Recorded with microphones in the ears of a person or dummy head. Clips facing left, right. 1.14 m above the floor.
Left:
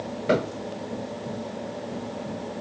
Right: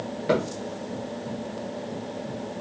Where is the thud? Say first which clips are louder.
Left 1 dB; centre (ahead or behind), 1.8 m.